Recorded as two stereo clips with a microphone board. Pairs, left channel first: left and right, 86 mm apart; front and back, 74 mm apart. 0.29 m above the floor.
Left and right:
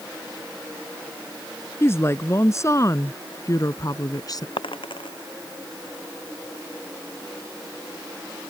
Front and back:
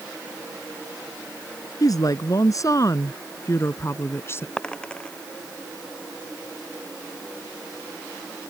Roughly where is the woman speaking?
Ahead left.